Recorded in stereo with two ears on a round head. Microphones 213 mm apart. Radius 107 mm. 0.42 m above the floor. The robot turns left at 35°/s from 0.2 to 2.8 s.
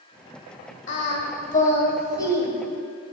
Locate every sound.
0.9 s singing: 55° left (ahead or behind), 1.2 m; by 3.1 s 5° right (ahead or behind), 1.2 m